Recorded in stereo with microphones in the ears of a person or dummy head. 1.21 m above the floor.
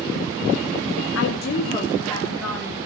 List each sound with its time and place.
1.1 s a woman speaking: 70° left (ahead or behind), 0.8 m; by 2.8 s 5° left (ahead or behind), 2.5 m